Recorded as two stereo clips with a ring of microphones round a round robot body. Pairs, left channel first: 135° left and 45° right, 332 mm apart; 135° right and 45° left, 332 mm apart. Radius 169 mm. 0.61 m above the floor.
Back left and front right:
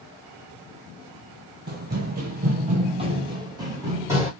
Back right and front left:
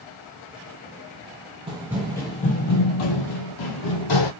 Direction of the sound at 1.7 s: 15° right.